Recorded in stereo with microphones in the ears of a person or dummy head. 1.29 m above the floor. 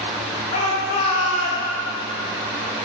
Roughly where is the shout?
Left.